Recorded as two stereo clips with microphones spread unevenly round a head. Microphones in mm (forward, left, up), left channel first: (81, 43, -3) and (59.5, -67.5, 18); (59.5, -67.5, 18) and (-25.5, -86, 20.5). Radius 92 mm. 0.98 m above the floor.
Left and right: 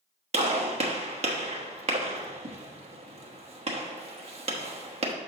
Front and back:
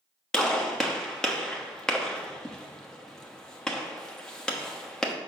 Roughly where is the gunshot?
Right.